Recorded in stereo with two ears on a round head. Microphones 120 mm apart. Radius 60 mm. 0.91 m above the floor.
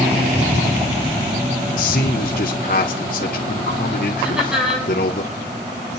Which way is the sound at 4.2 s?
5° right (ahead or behind).